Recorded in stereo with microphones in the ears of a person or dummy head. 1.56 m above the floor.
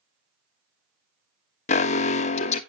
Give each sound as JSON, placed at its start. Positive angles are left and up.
{"t": 1.7, "sound": "an alarm", "side_deg": 40, "distance_m": 0.8}